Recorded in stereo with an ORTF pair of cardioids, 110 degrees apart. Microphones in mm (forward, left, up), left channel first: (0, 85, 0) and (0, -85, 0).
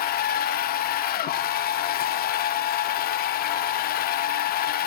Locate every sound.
0.0 s a machine running: 65° left, 0.9 m